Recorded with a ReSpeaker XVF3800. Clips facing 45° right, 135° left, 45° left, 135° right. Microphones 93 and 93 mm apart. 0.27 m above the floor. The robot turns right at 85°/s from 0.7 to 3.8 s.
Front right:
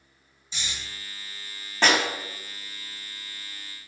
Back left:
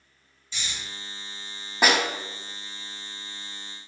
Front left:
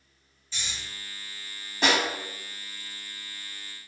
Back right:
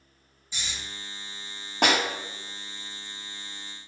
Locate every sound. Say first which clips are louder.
0.5 s snoring: even, back right 1 dB; 85° right, 1.6 m; by 0.7 s 80° right, 1.6 m
1.8 s a snare drum: even, back right 1 dB; 150° right, 0.7 m; by 2.0 s 130° right, 0.7 m